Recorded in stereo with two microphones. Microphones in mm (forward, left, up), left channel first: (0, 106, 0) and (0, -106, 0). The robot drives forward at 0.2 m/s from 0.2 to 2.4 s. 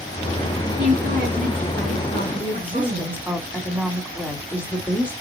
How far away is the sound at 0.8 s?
About 3 m.